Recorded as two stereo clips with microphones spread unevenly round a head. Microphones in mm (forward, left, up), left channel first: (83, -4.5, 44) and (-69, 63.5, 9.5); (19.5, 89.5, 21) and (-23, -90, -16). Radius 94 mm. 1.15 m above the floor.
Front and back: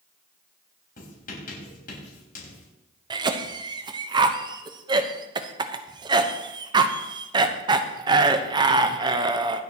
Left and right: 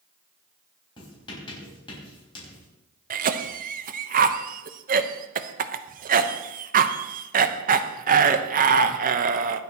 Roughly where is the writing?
Ahead.